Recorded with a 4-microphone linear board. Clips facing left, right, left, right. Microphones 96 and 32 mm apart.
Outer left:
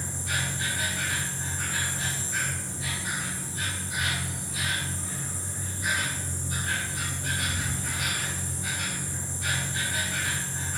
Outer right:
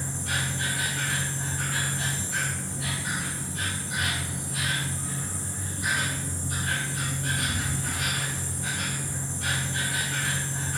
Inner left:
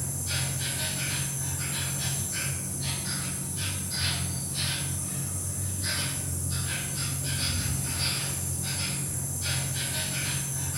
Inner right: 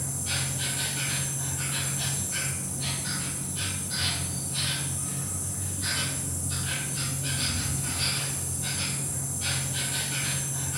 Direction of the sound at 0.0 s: 60° right (ahead or behind).